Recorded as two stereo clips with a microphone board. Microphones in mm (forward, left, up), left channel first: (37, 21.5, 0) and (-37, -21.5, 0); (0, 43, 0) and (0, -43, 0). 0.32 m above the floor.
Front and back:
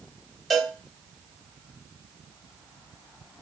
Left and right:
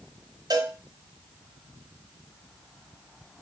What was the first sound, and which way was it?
A cowbell, 60° right.